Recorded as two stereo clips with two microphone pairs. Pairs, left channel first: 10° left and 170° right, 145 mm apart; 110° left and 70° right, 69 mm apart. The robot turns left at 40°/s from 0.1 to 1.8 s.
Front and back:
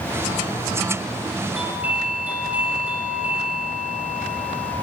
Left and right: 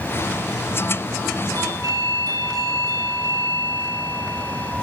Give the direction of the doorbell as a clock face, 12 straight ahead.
3 o'clock.